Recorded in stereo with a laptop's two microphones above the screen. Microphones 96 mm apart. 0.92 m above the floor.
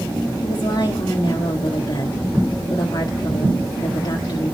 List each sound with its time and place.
0.4 s a woman speaking: 50° left (ahead or behind), 1.3 m